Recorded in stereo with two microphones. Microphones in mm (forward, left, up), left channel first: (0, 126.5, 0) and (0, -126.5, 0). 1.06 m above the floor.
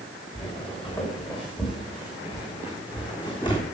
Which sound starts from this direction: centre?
Footsteps, at 0.3 s.